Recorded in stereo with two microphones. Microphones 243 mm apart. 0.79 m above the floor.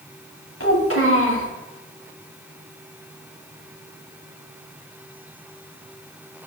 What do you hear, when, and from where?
0.6 s a child speaking: 90° left, 3 m